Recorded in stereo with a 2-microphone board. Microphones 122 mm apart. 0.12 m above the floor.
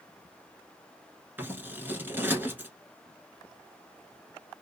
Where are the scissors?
15° right (ahead or behind), 1.0 m.